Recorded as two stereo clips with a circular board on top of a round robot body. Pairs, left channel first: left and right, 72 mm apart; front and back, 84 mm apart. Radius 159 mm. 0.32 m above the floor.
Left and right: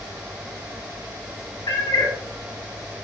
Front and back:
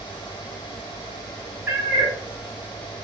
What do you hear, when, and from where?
1.7 s a cat meowing: 110° left, 1.4 m